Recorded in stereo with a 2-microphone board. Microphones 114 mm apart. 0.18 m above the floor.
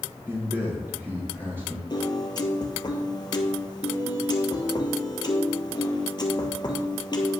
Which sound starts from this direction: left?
A piano, at 1.9 s.